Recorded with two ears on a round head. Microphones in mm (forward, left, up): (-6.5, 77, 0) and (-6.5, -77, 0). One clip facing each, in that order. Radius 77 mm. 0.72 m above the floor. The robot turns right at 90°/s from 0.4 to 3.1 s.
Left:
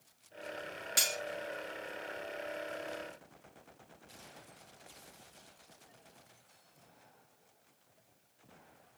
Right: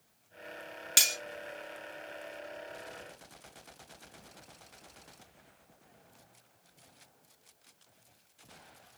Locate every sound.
1.0 s cutlery clinking: 35° right (ahead or behind), 0.6 m; by 1.2 s 15° right (ahead or behind), 0.6 m